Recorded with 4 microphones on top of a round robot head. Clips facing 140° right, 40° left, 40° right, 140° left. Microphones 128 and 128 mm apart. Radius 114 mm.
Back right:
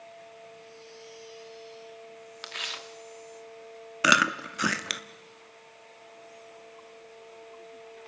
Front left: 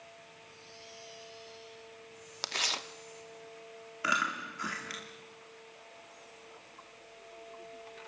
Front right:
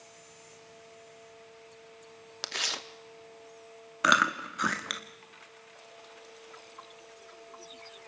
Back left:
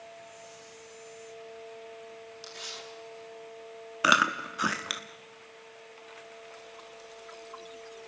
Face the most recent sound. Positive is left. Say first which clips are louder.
# back right 9 dB, back left 1 dB
turn(degrees=-135)